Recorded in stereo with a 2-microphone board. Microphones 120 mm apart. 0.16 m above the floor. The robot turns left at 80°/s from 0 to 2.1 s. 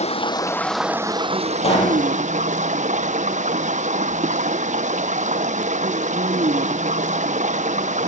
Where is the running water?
60° left, 0.9 m; by 8.1 s 105° right, 0.9 m.